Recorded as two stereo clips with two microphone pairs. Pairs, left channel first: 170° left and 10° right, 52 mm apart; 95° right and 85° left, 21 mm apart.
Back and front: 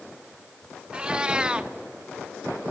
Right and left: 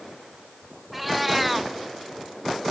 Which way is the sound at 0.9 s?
Straight ahead.